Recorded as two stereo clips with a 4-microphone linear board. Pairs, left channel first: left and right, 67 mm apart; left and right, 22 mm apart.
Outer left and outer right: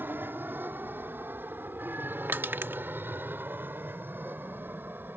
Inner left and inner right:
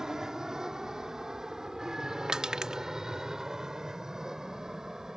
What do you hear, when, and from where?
0.0 s an aircraft: 30° right (ahead or behind)
2.3 s crushing: 35° right (ahead or behind)